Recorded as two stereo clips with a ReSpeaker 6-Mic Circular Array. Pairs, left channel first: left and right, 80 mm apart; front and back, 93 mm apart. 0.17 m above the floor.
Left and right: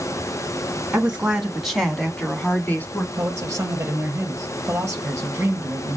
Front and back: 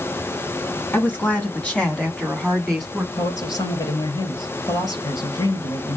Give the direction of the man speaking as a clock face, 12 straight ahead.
1 o'clock.